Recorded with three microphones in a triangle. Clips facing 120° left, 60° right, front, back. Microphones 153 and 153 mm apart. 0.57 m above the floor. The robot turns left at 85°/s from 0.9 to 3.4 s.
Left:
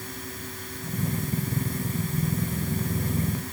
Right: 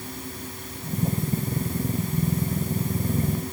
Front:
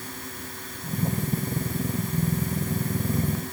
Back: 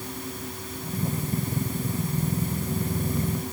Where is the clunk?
No clunk in this recording.